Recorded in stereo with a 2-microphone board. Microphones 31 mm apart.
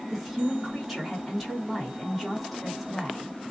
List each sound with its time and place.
0.1 s a woman speaking: centre (ahead or behind), 1.6 m